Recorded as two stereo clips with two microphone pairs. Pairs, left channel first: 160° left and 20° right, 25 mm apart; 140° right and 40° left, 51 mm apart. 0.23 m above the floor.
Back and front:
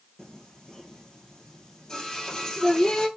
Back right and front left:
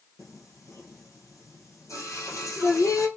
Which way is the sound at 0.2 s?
135° right.